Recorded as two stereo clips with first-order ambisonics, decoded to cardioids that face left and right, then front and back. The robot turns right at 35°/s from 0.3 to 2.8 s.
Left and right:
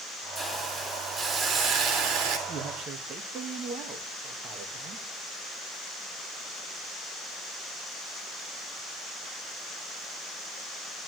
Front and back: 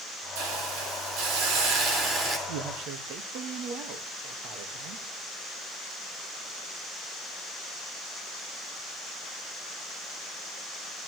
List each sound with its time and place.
0.3 s a hiss: 165° left, 4 m; by 2.4 s 125° right, 4 m
2.5 s a man speaking: 155° right, 1.6 m; by 5.0 s 145° right, 1.6 m